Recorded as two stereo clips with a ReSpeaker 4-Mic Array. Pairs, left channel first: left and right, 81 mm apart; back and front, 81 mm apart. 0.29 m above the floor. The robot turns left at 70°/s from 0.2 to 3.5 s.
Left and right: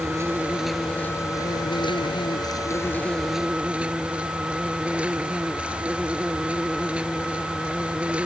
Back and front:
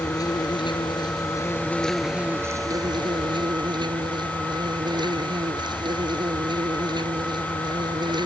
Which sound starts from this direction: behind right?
An insect, at 0.0 s.